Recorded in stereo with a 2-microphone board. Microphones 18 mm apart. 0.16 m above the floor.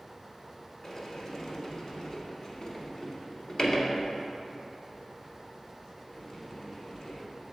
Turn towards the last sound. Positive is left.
turn(degrees=30)  # may be behind; listen again after turning